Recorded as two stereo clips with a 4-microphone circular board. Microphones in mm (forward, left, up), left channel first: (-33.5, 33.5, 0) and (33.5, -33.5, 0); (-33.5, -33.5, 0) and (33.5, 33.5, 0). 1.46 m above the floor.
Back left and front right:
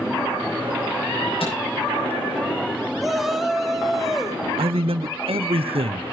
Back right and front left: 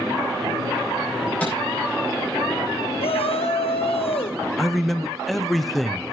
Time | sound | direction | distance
1.4 | a microwave | 150° left | 8.5 m
3.0 | a shout | 135° right | 1.5 m
4.6 | a man speaking | 45° right | 0.8 m